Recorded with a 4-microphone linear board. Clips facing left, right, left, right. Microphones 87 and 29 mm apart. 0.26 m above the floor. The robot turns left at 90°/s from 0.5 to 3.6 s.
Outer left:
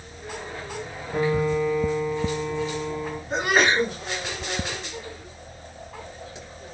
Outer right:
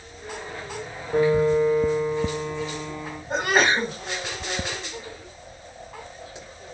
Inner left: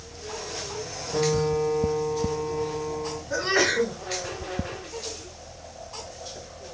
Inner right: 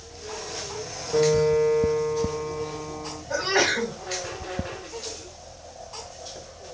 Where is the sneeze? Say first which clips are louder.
Even, inner right 1 dB; 50° right (ahead or behind), 1.9 m; by 3.9 s 45° right (ahead or behind), 1.9 m.